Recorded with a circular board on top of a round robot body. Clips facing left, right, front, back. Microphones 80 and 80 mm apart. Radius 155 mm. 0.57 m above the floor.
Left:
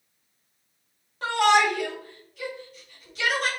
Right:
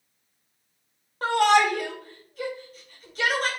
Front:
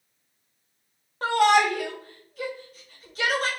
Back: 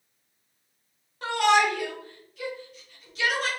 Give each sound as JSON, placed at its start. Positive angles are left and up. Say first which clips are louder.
{"t": 1.2, "sound": "a shout", "louder": "right 1 dB, front 2 dB", "azimuth_deg": -45, "distance_m": 2.5}